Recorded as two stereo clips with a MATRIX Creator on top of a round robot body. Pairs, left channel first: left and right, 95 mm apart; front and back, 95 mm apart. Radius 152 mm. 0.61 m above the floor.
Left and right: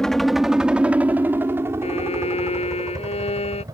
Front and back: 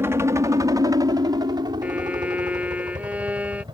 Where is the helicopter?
165° left; by 3.7 s 140° right.